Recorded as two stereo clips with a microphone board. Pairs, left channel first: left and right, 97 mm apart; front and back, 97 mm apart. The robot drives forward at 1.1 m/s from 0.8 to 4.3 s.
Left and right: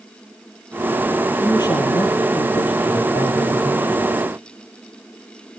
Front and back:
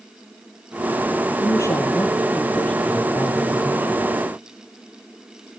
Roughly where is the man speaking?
Ahead left.